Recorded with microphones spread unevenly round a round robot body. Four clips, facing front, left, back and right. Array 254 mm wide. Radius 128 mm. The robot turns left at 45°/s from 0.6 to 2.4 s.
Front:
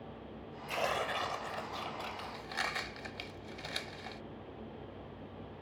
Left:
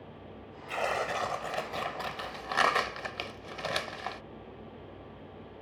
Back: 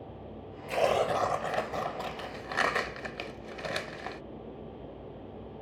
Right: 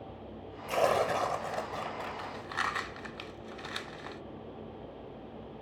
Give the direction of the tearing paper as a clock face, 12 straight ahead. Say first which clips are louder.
Right 5 dB, back 9 dB; 5 o'clock.